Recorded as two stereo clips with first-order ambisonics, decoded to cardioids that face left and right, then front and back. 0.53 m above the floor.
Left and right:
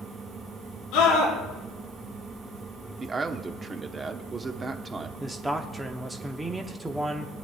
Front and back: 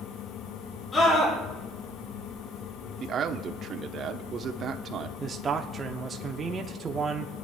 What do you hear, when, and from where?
0.9 s a scream: 70° left, 8 m
3.0 s a man speaking: 145° right, 0.9 m
5.2 s a man speaking: 150° right, 0.8 m